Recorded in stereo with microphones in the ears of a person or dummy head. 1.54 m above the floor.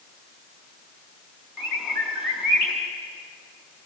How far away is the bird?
About 4 m.